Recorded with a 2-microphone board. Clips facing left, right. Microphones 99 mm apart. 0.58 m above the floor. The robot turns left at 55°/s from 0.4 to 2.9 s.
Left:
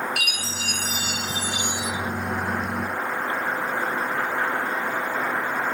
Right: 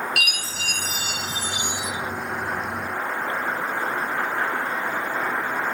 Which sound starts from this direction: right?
A chime, at 0.2 s.